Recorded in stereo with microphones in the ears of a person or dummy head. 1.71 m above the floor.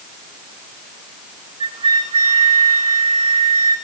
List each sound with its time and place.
1.6 s a flute: 25° right (ahead or behind), 2.5 m